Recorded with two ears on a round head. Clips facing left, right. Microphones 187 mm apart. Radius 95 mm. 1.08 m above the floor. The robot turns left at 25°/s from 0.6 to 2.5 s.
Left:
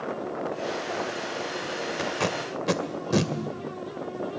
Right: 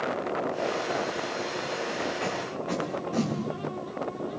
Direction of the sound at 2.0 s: 80° left.